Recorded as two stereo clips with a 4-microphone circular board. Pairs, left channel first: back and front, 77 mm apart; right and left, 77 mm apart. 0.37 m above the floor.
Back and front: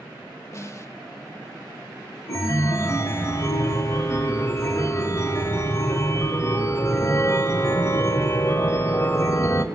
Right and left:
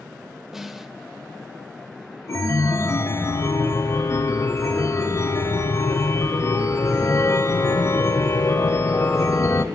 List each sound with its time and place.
0.5 s a snare drum: 175° left, 0.8 m
2.3 s a chime: 135° right, 1.0 m